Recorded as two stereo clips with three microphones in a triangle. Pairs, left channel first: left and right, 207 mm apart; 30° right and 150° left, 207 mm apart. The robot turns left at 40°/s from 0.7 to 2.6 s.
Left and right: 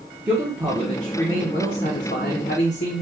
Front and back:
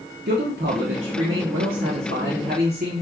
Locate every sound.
0.3 s a man speaking: 170° right, 0.9 m; by 3.0 s 110° left, 0.9 m